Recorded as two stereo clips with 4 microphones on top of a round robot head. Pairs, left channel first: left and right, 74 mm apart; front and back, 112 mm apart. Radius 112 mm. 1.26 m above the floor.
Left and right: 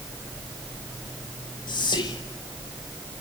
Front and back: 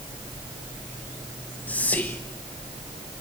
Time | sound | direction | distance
1.7 | whispering | 80° left | 1.1 m